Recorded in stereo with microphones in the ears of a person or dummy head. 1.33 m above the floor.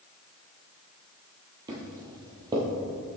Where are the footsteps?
20° right (ahead or behind), 1.6 m.